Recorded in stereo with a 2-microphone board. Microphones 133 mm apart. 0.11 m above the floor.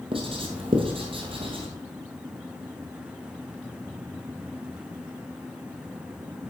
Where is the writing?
45° right (ahead or behind), 1.5 m.